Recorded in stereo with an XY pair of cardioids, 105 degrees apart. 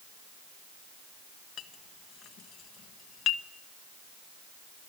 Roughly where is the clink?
Left.